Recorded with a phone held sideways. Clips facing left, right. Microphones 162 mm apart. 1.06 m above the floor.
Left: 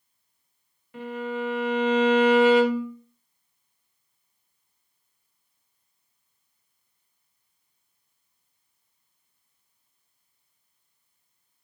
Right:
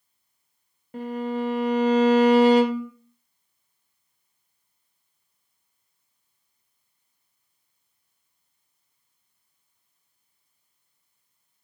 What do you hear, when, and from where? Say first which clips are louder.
0.9 s a violin: right 3 dB; 40° right (ahead or behind), 0.6 m